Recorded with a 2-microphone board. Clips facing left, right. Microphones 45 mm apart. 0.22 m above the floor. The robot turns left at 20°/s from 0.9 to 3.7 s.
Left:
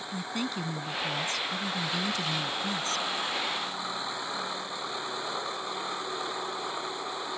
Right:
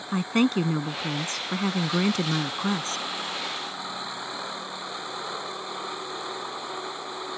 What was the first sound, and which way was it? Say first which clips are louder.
A woman speaking: right 11 dB; 80° right.